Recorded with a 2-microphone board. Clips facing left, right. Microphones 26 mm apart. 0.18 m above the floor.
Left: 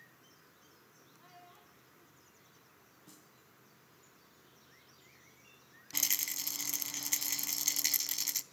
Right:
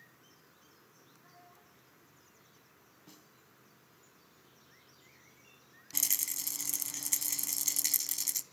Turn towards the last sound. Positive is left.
turn(degrees=25)  # may be behind; listen again after turning